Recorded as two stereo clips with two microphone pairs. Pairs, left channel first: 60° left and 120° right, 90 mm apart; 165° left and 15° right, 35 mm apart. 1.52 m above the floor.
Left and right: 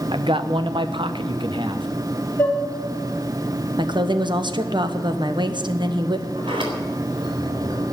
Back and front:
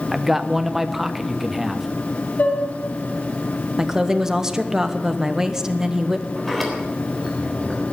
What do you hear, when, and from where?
0.1 s a man speaking: 100° right, 1.1 m
2.4 s dishes clattering: 130° left, 3 m
3.8 s a woman speaking: 95° right, 1.2 m
6.3 s a sliding door: 110° right, 3.5 m